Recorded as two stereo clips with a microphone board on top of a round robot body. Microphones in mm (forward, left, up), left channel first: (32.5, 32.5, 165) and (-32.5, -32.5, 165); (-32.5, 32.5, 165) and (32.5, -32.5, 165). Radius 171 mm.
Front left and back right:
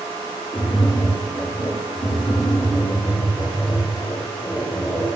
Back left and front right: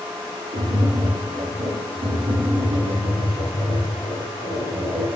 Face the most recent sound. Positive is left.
turn(degrees=-55)